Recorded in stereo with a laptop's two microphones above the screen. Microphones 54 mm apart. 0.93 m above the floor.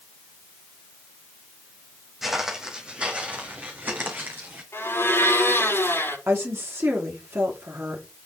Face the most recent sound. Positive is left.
turn(degrees=-50)  # may be behind; listen again after turning